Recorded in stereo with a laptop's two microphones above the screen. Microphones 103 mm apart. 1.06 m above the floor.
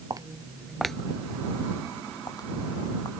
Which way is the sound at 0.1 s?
35° right (ahead or behind).